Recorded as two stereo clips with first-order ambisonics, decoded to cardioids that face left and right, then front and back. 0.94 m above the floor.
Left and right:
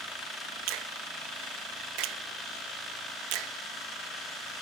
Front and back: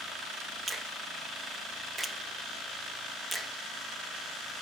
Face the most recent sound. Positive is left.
turn(degrees=-100)